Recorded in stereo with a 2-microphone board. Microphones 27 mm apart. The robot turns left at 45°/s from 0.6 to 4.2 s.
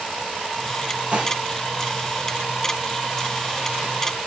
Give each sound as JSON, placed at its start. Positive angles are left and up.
{"t": 1.1, "sound": "dishes clattering", "side_deg": -45, "distance_m": 5.0}